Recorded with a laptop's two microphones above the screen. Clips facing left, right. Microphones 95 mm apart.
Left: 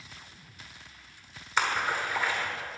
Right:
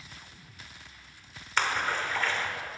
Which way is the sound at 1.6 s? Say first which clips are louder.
Left 1 dB; 10° left (ahead or behind).